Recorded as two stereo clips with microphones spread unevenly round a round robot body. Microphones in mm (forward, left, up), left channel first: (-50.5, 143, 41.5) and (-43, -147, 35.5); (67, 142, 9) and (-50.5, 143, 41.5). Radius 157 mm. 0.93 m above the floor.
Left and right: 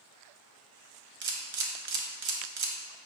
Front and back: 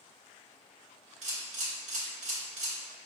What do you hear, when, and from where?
1.2 s a camera shutter: 145° right, 0.5 m